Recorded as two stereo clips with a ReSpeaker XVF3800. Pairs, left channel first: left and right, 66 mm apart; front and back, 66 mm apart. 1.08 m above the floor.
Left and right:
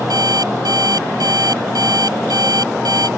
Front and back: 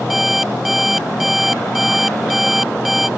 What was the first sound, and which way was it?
An alarm clock, 95° right.